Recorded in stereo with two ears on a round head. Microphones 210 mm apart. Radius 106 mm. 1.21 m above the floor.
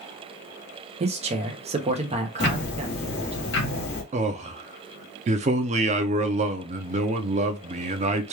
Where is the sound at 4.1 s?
30° right (ahead or behind), 0.6 m.